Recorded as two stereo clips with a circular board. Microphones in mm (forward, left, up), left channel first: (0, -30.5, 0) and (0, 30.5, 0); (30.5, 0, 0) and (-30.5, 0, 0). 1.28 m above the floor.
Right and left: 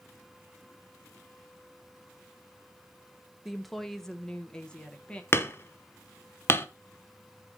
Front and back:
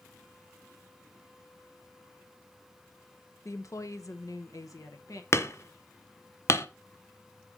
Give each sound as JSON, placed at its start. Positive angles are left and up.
{"t": 3.5, "sound": "a woman speaking", "azimuth_deg": 5, "distance_m": 0.8}
{"t": 5.3, "sound": "hammering", "azimuth_deg": -40, "distance_m": 0.8}